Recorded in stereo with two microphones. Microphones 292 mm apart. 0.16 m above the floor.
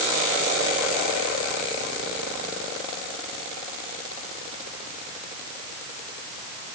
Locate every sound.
Only background noise.